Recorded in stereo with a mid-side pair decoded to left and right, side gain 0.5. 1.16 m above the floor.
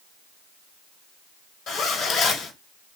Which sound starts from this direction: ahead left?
A zipper, at 1.7 s.